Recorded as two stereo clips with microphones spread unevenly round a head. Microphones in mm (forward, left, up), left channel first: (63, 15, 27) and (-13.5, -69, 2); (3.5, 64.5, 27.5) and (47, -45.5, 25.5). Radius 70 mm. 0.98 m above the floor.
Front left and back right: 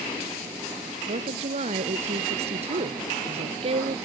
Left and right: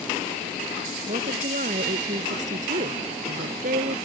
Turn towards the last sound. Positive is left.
turn(degrees=-95)